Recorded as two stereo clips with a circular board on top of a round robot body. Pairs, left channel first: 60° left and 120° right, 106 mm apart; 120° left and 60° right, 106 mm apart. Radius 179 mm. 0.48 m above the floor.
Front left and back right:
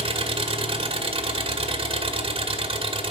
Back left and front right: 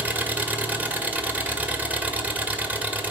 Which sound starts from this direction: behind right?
An engine running, at 0.0 s.